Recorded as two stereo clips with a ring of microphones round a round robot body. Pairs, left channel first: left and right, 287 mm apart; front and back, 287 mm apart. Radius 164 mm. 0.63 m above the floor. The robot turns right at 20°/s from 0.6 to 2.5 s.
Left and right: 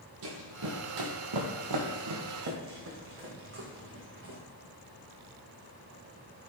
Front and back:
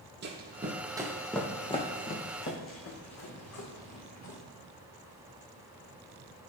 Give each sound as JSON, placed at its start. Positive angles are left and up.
{"t": 0.2, "sound": "running footsteps", "azimuth_deg": -125, "distance_m": 1.3}